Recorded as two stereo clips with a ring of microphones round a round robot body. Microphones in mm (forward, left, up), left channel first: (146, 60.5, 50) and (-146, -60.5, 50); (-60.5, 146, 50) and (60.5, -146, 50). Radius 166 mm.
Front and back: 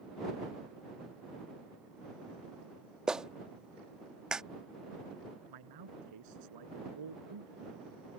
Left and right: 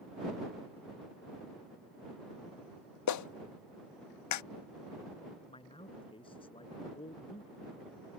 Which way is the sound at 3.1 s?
115° left.